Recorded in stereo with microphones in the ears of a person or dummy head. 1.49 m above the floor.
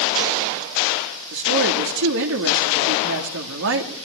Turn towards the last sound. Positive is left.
turn(degrees=-70)  # may be behind; listen again after turning